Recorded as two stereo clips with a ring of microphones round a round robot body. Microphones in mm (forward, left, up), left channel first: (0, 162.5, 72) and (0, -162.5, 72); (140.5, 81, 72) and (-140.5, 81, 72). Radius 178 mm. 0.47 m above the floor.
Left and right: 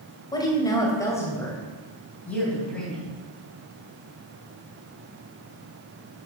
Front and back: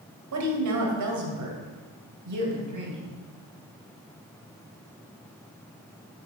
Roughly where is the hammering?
I don't hear hammering.